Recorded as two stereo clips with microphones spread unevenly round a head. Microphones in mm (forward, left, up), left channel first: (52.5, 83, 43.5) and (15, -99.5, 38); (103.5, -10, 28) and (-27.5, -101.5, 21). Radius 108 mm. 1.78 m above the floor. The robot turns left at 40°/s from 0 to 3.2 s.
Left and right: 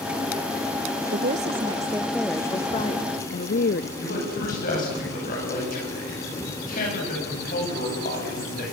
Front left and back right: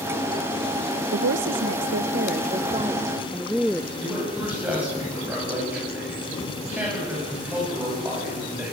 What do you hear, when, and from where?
1.1 s a woman speaking: 150° right, 0.6 m; by 3.9 s 125° left, 0.6 m
4.0 s a man speaking: 130° left, 9.5 m